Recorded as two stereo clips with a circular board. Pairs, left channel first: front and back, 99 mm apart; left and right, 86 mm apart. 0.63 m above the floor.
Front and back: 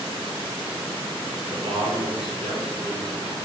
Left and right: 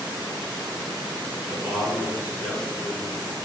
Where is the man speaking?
160° right, 7.5 m.